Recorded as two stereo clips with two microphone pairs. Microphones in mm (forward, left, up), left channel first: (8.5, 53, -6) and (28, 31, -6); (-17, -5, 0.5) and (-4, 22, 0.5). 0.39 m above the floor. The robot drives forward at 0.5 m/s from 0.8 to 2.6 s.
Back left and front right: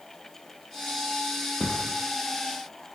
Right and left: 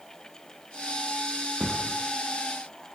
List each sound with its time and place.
1.6 s a thud: 140° left, 10 m; by 1.9 s 145° left, 10 m